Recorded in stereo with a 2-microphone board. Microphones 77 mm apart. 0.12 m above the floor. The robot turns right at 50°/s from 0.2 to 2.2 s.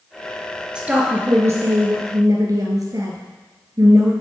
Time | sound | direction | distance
0.8 | a woman speaking | 165° right | 2 m